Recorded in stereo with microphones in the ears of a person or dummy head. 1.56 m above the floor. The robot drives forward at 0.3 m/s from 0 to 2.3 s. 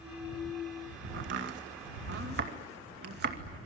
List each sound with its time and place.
1.1 s chopping: 60° right (ahead or behind), 2 m; by 3.4 s 50° right (ahead or behind), 2.5 m